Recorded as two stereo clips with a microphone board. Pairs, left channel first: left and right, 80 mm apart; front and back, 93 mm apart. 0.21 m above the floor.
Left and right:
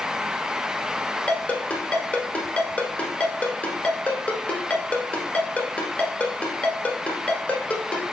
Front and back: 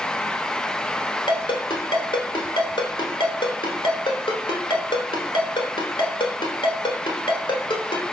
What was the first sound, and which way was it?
A ringtone, 20° left.